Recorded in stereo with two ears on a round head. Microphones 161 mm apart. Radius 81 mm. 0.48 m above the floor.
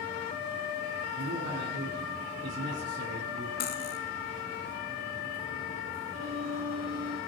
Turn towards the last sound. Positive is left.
turn(degrees=-85)